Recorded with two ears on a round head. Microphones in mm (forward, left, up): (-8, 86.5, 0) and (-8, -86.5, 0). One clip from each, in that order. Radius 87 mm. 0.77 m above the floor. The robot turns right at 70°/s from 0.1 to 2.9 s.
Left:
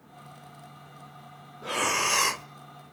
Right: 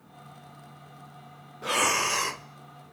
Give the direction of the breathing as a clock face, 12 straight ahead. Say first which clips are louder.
Right 2 dB; 1 o'clock.